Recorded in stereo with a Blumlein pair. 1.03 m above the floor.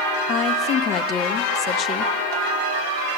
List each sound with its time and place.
0.3 s a woman speaking: 30° left, 0.8 m